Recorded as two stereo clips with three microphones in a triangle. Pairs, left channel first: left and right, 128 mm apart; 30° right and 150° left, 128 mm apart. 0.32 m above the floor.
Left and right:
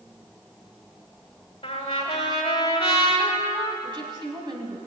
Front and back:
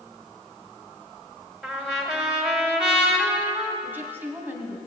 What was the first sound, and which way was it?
A trumpet, 65° left.